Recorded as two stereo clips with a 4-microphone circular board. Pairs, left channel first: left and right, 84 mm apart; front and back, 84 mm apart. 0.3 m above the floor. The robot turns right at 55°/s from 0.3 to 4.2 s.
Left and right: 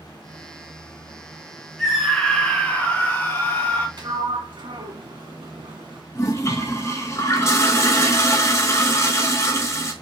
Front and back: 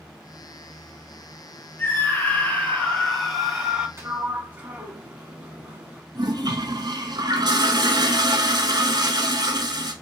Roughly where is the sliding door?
Behind right.